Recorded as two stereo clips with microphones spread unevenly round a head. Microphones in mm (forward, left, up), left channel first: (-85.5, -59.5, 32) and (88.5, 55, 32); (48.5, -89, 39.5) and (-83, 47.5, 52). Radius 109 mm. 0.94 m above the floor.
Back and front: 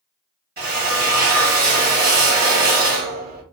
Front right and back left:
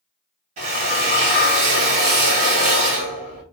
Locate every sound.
0.6 s a drill: 75° left, 2 m